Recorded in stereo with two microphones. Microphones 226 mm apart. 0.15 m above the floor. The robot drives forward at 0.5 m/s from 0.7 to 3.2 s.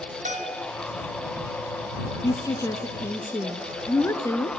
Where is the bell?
35° right (ahead or behind), 1.2 m.